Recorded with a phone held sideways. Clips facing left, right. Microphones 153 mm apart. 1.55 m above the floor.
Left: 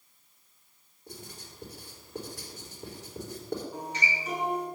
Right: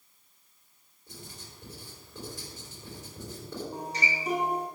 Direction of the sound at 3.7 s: 35° right (ahead or behind).